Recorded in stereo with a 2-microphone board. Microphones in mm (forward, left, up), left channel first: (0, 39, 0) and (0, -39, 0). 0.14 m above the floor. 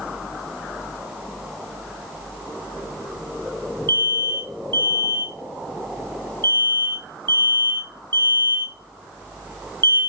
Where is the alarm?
30° left (ahead or behind), 5.5 m.